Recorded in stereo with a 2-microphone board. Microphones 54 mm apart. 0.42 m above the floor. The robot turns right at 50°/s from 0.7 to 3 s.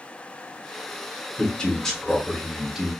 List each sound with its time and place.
1.4 s a man speaking: 15° left (ahead or behind), 0.9 m; by 2.9 s 10° right (ahead or behind), 0.9 m